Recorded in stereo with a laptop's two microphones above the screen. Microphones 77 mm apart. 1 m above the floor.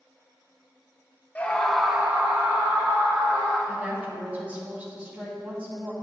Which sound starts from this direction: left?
A scream, at 1.4 s.